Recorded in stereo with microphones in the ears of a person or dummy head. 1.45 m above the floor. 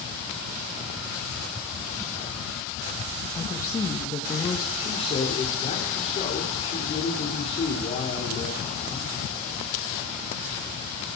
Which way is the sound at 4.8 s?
35° left (ahead or behind).